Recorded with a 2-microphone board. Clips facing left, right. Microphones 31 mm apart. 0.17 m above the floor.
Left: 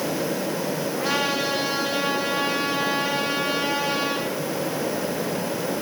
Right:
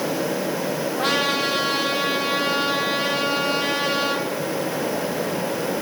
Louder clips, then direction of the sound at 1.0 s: Right 3 dB; 80° right.